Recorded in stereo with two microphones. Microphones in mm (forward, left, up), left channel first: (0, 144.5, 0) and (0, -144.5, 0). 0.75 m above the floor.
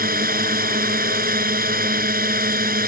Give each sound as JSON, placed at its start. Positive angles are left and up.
{"t": 0.0, "sound": "a drone", "side_deg": -30}